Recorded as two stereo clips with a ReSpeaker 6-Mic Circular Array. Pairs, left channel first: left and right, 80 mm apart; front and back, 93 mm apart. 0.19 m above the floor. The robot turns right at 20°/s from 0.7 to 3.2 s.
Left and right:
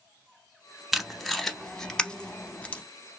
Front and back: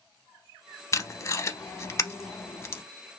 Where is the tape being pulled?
5° right, 0.6 m; by 2.8 s 35° left, 0.6 m.